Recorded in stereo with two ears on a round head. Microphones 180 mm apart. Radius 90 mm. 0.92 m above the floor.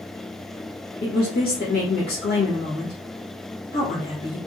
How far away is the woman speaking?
About 1.0 m.